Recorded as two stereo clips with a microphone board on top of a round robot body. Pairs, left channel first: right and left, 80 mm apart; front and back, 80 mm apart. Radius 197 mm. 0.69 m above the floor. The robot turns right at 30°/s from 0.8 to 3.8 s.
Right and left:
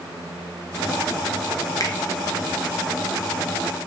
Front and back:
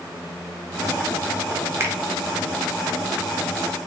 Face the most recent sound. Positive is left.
turn(degrees=-65)